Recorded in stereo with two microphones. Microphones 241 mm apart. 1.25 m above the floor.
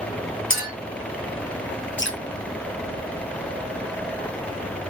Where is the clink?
60° left (ahead or behind), 1.0 m.